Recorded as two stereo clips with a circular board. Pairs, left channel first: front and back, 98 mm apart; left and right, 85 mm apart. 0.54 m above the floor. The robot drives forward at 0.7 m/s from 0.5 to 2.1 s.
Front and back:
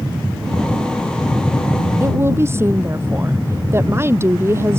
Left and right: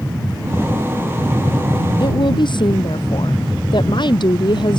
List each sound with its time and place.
2.0 s a woman speaking: 115° left